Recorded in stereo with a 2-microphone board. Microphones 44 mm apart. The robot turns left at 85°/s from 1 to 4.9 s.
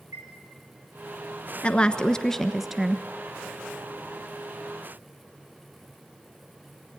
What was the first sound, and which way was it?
A chime, 85° right.